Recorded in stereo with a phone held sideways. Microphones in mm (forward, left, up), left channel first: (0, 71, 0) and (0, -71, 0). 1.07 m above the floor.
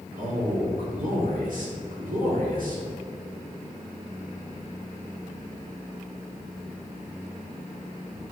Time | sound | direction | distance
0.2 | a man speaking | 75° right (ahead or behind) | 3 m